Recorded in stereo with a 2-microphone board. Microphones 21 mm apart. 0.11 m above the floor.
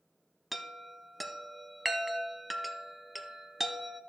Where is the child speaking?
No child speaking in this recording.